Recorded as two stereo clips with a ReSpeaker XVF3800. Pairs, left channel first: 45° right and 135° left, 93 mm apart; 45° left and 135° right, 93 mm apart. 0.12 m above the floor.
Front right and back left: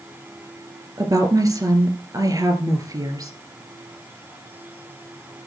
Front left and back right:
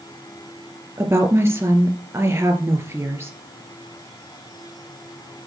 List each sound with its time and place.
1.0 s a woman speaking: 170° left, 2.5 m